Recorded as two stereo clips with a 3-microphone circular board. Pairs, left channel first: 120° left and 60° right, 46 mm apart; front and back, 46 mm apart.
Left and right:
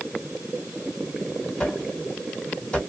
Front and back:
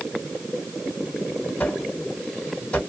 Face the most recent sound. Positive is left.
turn(degrees=55)